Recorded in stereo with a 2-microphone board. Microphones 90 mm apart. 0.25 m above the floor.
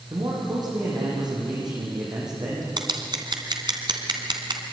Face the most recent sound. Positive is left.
turn(degrees=-55)  # may be behind; listen again after turning